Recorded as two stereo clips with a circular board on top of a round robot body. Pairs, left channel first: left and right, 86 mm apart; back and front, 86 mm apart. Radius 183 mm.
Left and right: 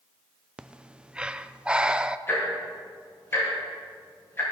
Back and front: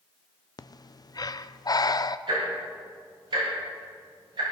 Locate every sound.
0.6 s breathing: 165° right, 0.7 m
2.3 s ticking: 25° left, 6 m